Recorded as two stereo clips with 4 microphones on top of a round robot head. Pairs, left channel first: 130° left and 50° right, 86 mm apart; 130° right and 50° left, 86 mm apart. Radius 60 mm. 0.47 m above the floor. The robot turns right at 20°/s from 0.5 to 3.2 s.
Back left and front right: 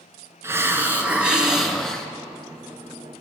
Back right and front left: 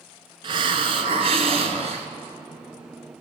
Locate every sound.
0.4 s a hiss: 15° left, 1.8 m; by 2.1 s 45° left, 1.8 m